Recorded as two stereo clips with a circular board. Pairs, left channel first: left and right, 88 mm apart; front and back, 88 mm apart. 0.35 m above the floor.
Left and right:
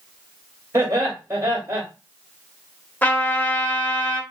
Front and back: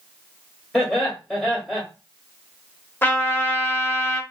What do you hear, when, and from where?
0.7 s laughter: 80° right, 1.2 m
3.0 s a trumpet: 45° left, 0.6 m